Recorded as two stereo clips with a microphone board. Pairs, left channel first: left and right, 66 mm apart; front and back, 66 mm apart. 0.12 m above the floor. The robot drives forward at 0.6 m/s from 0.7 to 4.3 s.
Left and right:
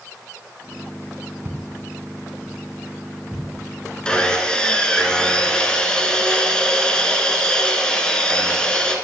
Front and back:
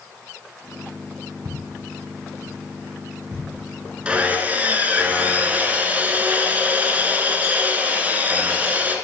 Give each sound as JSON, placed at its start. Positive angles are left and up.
{"t": 1.4, "sound": "footsteps", "azimuth_deg": -140, "distance_m": 1.2}
{"t": 4.0, "sound": "sawing", "azimuth_deg": 140, "distance_m": 1.1}